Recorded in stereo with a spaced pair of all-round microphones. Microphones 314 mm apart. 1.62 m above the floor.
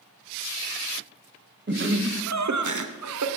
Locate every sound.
1.7 s laughter: 35° right (ahead or behind), 0.7 m; by 3.3 s 60° right (ahead or behind), 0.7 m